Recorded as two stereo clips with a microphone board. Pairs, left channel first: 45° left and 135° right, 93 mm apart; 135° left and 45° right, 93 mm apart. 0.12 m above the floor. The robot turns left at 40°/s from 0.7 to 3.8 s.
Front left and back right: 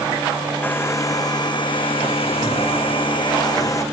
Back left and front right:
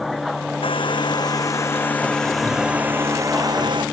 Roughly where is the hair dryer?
Behind left.